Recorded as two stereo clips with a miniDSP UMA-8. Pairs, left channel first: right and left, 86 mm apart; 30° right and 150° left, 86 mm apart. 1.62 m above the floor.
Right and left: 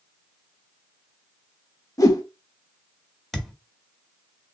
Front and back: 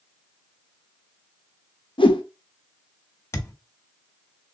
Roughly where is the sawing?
I don't hear sawing.